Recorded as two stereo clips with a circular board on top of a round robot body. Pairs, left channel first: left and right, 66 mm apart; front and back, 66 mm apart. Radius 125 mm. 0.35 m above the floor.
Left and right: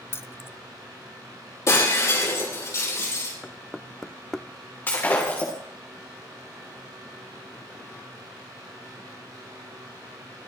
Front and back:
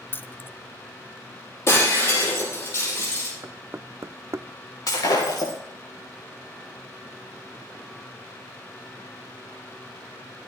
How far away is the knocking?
About 0.6 m.